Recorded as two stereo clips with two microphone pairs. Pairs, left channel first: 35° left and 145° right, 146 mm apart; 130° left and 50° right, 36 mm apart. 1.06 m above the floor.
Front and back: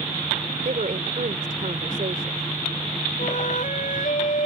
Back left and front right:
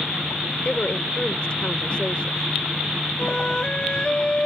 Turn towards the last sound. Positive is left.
turn(degrees=65)